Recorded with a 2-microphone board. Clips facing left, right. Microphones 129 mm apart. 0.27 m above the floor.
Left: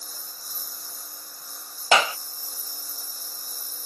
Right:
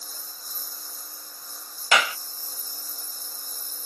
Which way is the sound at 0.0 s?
10° left (ahead or behind).